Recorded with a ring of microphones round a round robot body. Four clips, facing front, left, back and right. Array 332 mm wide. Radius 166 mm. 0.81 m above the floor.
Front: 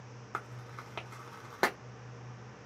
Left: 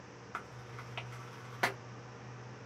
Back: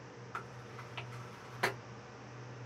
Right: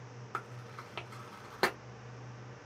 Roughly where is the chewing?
Ahead right.